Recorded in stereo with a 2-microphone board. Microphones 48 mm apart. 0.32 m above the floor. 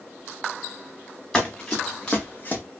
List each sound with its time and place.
1.3 s running footsteps: 10° left (ahead or behind), 1.6 m; by 2.6 s 40° left (ahead or behind), 0.7 m